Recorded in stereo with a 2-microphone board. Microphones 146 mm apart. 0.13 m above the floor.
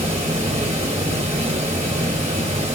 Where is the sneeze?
I don't hear a sneeze.